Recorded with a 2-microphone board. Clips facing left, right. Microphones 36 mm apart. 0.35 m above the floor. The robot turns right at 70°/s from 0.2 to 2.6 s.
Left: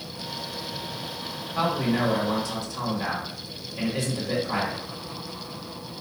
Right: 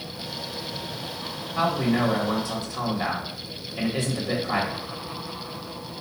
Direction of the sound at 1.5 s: 160° left.